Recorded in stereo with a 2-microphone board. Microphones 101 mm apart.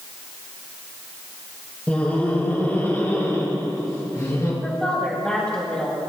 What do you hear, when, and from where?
1.9 s laughter: 15° left (ahead or behind), 5 m; by 4.5 s 35° left (ahead or behind), 6.5 m
4.6 s a woman speaking: 10° left (ahead or behind), 3 m